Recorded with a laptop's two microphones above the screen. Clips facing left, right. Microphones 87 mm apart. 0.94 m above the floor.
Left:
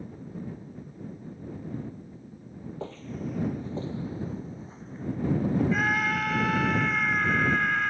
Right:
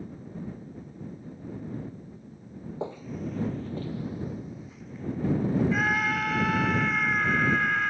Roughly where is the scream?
Centre.